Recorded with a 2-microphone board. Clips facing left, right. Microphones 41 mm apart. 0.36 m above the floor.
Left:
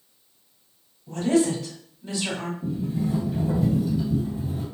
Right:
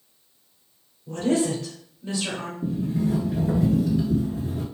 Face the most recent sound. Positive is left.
turn(degrees=-75)  # may be behind; listen again after turning